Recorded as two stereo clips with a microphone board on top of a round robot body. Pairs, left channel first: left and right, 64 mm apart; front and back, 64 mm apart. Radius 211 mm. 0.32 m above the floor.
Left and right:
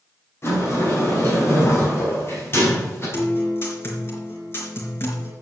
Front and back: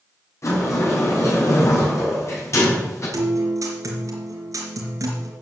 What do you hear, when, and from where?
0.4 s a sliding door: 40° left, 5.5 m
3.1 s a guitar: 140° left, 3.5 m